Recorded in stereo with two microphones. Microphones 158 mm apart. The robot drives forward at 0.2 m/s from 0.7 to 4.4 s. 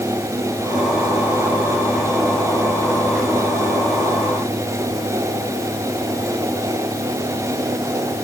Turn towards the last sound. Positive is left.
No sound to turn to.